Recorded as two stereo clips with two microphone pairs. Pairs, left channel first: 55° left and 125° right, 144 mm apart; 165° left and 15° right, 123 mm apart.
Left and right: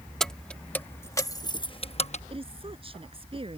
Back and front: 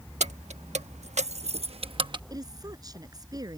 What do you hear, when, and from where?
0.2 s keys jangling: 30° right; by 2.2 s 30° left
2.3 s a woman speaking: 75° right